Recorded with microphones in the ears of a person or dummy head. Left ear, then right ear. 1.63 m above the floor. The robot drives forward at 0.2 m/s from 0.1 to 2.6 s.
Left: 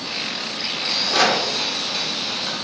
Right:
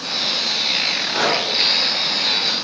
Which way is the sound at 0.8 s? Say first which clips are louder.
Left 1 dB; 70° left (ahead or behind).